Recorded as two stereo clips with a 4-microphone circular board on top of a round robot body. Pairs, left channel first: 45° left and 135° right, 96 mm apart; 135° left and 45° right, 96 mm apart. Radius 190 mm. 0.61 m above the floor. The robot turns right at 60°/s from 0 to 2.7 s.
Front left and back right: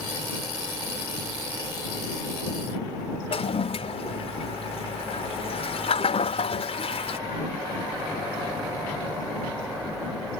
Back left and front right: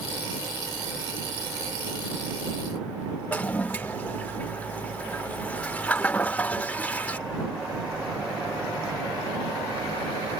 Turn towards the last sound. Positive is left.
turn(degrees=60)